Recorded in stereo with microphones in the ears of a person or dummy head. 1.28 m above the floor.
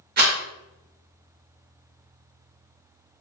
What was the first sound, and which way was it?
A rattle, 45° right (ahead or behind).